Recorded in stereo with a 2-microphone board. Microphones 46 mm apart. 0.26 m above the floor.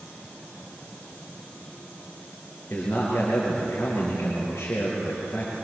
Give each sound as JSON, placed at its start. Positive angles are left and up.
{"t": 2.7, "sound": "a man speaking", "side_deg": 50, "distance_m": 5.5}